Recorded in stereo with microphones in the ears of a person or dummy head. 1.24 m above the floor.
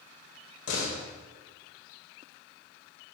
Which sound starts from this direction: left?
A door slam, at 0.7 s.